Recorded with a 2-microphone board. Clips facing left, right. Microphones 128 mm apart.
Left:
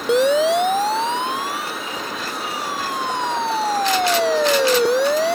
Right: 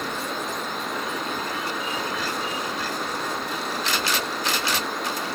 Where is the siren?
85° left; by 5.3 s 80° left.